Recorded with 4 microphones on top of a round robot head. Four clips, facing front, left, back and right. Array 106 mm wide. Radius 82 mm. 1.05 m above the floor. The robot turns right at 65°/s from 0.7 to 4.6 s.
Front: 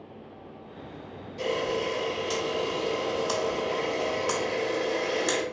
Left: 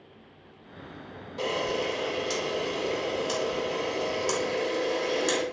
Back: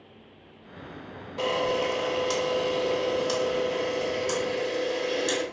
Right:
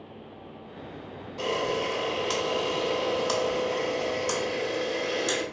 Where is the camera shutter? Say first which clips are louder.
Right 1 dB, back 2 dB; 175° right, 1.1 m; by 5.4 s 35° left, 1.1 m.